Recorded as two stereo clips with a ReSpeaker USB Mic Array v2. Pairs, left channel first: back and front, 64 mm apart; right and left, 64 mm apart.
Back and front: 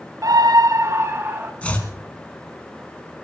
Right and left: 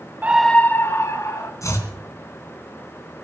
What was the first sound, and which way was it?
A scream, 30° left.